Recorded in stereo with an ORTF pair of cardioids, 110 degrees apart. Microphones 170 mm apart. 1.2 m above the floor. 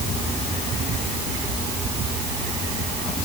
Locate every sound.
Only background noise.